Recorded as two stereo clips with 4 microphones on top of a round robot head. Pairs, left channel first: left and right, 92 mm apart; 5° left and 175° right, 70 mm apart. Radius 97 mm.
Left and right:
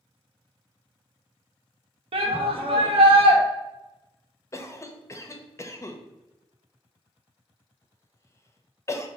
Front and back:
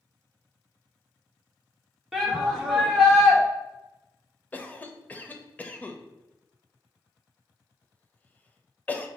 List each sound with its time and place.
2.1 s a shout: 85° right, 1.1 m
4.5 s a cough: 55° left, 0.7 m